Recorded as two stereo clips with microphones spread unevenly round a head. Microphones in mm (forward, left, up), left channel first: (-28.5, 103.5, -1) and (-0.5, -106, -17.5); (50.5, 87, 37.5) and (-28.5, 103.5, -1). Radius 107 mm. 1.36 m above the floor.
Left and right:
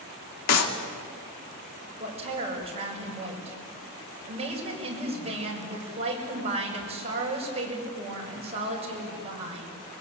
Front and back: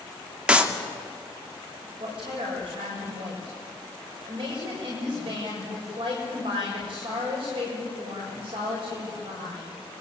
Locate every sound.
0.5 s a clap: 85° left, 2.5 m
2.0 s a woman speaking: 145° right, 6.5 m